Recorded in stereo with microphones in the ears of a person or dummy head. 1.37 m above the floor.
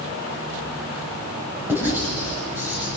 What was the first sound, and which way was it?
Writing, 10° right (ahead or behind).